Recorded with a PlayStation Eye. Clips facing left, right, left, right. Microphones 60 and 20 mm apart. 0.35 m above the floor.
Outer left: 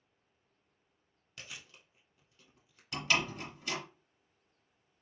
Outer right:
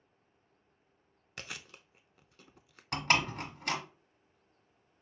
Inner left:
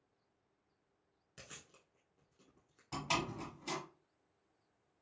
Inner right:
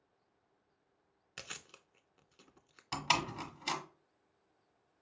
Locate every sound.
1.4 s chewing: 75° right (ahead or behind), 0.5 m
2.9 s a door slam: 55° right (ahead or behind), 1.0 m